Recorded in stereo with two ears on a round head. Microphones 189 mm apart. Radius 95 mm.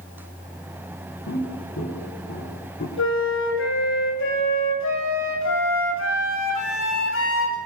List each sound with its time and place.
1.3 s footsteps: 55° left (ahead or behind), 7.5 m; by 2.9 s 50° left (ahead or behind), 7.5 m
3.0 s a flute: 65° left (ahead or behind), 8 m